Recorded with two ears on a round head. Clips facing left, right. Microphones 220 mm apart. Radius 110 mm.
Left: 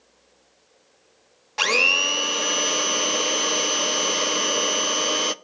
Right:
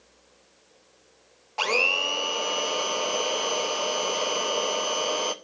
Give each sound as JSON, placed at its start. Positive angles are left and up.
{"t": 1.6, "sound": "a blender", "side_deg": 25, "distance_m": 0.6}